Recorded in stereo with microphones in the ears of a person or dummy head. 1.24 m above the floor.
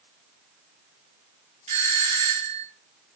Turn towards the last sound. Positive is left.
turn(degrees=-30)  # may be behind; listen again after turning